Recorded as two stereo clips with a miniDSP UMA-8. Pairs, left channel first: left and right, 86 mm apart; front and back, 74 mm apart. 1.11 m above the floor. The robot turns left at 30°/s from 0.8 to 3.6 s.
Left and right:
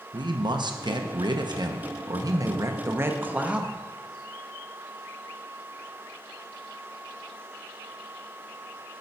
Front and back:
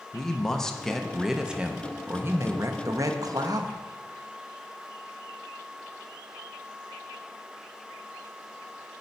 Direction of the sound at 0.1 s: 80° right.